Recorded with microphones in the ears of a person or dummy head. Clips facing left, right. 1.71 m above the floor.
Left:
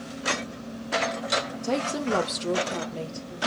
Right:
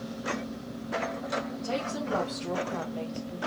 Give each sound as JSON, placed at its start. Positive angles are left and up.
{"t": 1.6, "sound": "a woman speaking", "side_deg": 60, "distance_m": 0.7}